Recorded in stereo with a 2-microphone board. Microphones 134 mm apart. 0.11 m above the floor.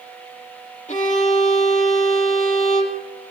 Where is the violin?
65° left (ahead or behind), 4 m.